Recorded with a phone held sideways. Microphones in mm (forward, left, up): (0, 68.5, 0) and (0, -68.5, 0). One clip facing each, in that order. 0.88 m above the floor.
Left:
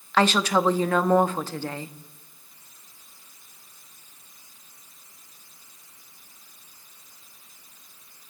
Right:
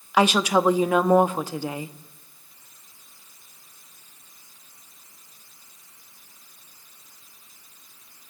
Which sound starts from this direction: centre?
A woman speaking, at 0.1 s.